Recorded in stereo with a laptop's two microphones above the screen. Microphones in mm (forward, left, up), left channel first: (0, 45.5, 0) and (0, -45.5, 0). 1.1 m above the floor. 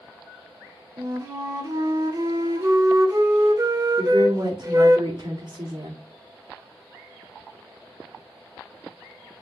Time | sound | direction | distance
1.0 | a flute | 40° right (ahead or behind) | 1.6 m
4.0 | a woman speaking | 55° right (ahead or behind) | 2 m